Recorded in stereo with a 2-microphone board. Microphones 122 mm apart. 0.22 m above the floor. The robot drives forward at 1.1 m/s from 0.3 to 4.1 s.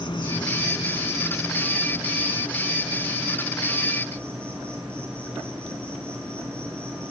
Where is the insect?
45° left (ahead or behind), 1.2 m; by 7.1 s 10° left (ahead or behind), 5 m.